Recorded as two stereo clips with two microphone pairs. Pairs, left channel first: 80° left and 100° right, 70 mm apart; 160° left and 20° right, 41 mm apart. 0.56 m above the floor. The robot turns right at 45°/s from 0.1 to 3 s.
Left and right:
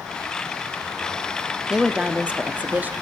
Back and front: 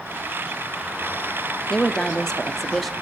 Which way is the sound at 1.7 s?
175° right.